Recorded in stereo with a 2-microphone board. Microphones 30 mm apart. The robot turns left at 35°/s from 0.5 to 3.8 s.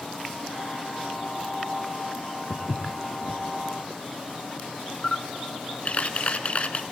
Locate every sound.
2.5 s footsteps: 80° left, 1.3 m; by 3.4 s 60° left (ahead or behind), 1.3 m
5.0 s a camera shutter: 45° left (ahead or behind), 0.9 m